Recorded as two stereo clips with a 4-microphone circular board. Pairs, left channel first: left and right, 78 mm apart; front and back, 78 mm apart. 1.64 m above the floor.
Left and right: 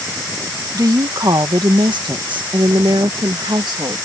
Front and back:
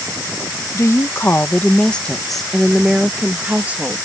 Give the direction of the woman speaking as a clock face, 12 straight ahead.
2 o'clock.